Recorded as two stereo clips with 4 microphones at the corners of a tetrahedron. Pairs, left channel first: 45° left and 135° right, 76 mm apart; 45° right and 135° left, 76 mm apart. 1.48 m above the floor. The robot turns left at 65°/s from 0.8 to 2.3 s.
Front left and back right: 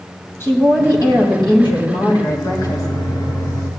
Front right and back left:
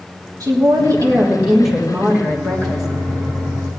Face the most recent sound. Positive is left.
turn(degrees=10)